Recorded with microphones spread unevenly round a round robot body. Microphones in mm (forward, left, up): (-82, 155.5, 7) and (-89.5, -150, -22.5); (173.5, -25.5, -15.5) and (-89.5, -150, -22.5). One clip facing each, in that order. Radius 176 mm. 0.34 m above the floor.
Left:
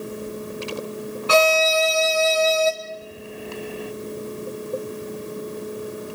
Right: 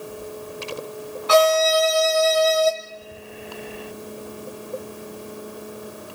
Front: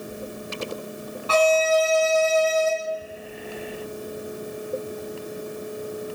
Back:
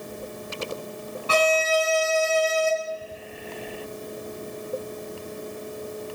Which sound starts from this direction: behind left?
A violin, at 1.3 s.